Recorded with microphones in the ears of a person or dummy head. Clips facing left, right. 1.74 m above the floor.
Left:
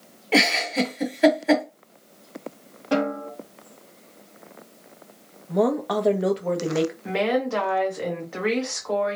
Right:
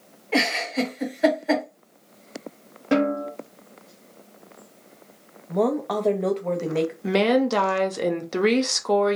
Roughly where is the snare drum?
Right.